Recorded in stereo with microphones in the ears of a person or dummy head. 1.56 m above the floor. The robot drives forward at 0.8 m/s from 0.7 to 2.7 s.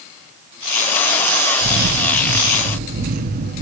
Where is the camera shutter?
40° right (ahead or behind), 1.4 m; by 3.6 s 45° right (ahead or behind), 1.3 m.